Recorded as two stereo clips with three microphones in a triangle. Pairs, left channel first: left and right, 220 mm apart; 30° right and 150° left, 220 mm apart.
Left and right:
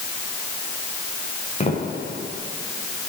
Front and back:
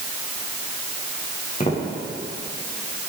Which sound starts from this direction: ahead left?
Footsteps, at 1.6 s.